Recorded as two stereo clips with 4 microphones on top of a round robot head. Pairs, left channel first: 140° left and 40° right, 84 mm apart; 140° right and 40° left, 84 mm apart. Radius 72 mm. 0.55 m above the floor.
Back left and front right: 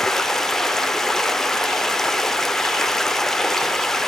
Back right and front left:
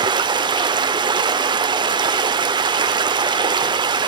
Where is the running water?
60° left, 1.4 m.